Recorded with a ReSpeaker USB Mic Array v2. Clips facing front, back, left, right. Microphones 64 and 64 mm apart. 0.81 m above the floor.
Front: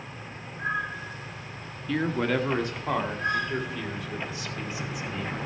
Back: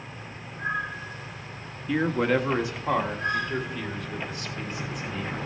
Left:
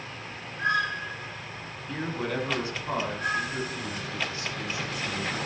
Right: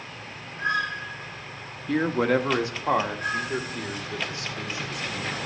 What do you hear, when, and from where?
1.9 s a man speaking: 105° right, 1.1 m; by 5.4 s 85° right, 3 m